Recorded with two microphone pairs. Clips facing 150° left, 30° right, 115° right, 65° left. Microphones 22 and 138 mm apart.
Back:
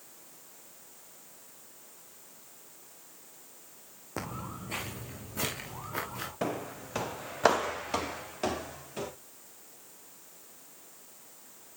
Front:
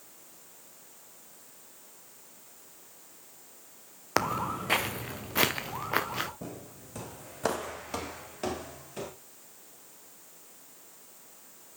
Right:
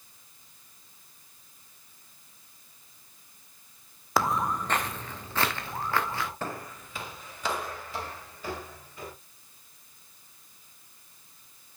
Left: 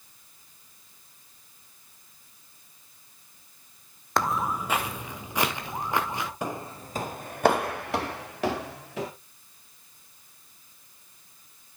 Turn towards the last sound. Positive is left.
turn(degrees=70)